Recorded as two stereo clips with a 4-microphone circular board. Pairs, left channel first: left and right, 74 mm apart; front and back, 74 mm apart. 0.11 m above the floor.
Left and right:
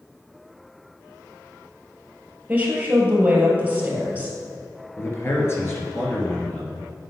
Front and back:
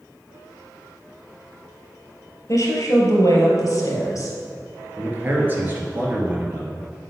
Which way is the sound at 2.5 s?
25° right.